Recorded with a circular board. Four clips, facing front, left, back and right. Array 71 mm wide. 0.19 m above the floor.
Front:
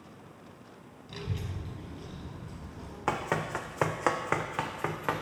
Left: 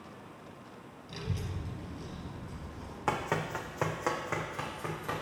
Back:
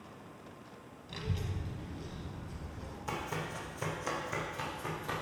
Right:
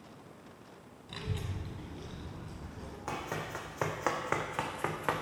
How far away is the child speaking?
About 1.2 m.